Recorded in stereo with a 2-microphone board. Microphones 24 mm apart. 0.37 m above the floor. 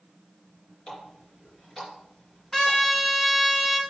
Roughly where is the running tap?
Left.